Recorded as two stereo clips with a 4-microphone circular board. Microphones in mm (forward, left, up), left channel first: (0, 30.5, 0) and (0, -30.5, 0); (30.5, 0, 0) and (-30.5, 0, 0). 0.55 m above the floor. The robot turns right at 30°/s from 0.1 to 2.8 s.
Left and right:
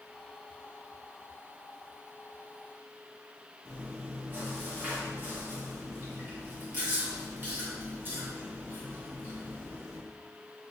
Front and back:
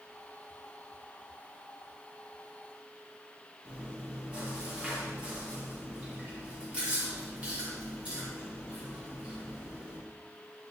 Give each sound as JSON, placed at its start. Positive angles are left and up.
{"t": 3.6, "sound": "chewing", "azimuth_deg": -125, "distance_m": 1.2}